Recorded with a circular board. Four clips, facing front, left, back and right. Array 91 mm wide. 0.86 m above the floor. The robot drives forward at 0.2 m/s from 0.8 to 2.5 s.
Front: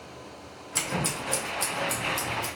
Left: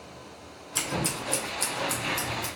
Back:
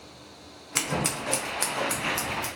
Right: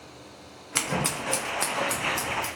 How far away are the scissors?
About 0.5 m.